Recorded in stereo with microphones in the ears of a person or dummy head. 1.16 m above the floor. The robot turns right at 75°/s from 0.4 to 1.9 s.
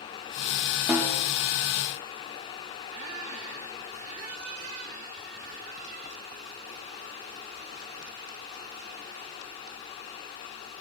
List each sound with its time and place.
0.9 s a snare drum: 5° right (ahead or behind), 0.8 m; by 1.2 s 20° right (ahead or behind), 0.8 m
2.9 s a squeak: 35° right (ahead or behind), 1.0 m